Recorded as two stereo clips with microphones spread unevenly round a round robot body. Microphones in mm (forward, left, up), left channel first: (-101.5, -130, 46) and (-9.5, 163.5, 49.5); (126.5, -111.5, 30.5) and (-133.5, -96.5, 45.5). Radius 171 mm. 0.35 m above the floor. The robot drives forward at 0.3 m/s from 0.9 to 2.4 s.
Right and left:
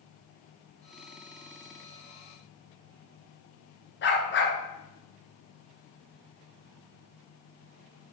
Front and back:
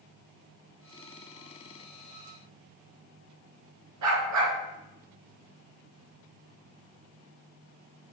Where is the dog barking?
165° right, 1.9 m.